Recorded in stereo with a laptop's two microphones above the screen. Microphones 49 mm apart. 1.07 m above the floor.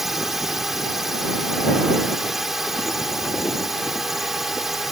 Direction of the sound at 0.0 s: 5° right (ahead or behind).